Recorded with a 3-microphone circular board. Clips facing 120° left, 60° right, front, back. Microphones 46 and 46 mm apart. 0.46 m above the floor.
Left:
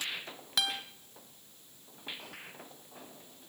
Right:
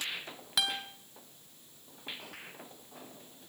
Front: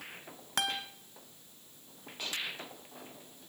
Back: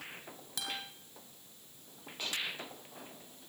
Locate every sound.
0.6 s a guitar: 25° left, 2.5 m